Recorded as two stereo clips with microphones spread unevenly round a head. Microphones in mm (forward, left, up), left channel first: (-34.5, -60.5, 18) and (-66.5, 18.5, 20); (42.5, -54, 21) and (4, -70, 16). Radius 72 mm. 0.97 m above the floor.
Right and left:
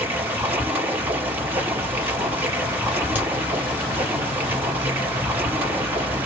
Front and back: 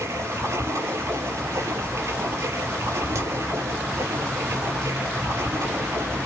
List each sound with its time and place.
0.0 s running water: straight behind, 6.5 m
3.1 s a crack: straight behind, 6 m